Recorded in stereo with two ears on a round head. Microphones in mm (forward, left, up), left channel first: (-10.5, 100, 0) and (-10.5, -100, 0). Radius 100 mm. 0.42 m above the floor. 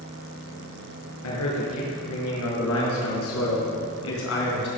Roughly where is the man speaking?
Left.